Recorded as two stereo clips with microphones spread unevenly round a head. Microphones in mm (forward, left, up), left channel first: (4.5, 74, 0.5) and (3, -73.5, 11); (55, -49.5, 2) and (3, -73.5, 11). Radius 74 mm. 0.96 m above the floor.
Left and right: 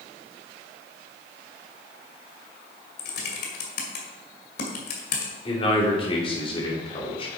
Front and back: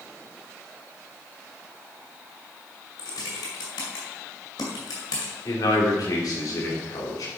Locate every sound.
3.0 s typing on a keyboard: 65° left, 1.9 m
5.5 s a man speaking: 35° left, 2.5 m